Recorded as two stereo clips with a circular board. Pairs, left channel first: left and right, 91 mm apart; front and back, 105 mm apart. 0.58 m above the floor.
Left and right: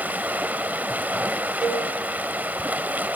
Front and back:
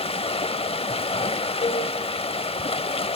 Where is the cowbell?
10° right, 2 m.